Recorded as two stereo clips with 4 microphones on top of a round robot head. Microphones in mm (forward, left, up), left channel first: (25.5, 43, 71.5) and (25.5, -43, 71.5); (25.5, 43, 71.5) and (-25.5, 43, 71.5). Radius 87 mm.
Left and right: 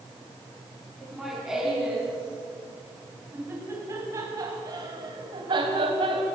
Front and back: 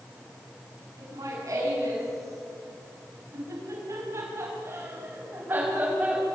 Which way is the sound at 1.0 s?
Straight behind.